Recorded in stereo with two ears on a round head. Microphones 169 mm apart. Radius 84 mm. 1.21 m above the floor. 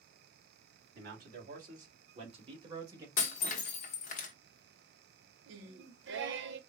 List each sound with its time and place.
0.9 s a man speaking: 55° right (ahead or behind), 2.5 m; by 3.1 s 15° right (ahead or behind), 1.5 m
3.2 s breaking glass: 40° left (ahead or behind), 1.0 m
5.5 s singing: 65° right (ahead or behind), 0.8 m